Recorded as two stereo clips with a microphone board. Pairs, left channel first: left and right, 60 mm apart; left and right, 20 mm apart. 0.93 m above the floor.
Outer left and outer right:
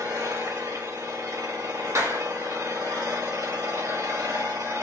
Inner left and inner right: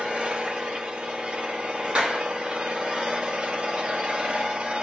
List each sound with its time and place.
0.0 s an engine running: 75° right (ahead or behind), 1.7 m
1.9 s a clap: 55° right (ahead or behind), 2.0 m